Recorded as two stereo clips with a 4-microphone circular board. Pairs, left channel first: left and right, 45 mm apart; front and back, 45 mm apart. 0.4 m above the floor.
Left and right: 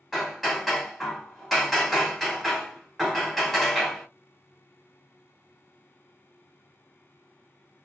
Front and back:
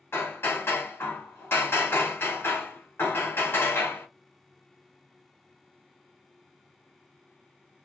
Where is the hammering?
5° right, 1.4 m.